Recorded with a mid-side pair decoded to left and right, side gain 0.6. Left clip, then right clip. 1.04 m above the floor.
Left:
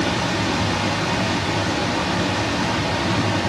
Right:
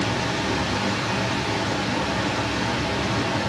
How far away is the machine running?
About 1.1 m.